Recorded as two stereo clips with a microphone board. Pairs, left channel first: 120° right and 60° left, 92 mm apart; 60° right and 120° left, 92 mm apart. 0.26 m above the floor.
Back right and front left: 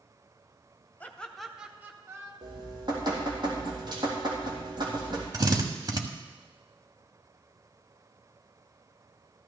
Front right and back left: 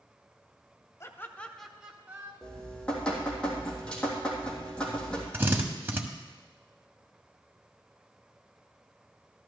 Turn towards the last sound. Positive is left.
turn(degrees=65)